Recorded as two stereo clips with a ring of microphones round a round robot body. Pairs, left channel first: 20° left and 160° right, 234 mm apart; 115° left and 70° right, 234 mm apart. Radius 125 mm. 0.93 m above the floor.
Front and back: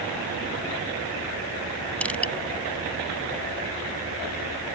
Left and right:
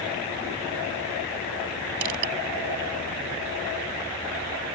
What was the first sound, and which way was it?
Crushing, 60° right.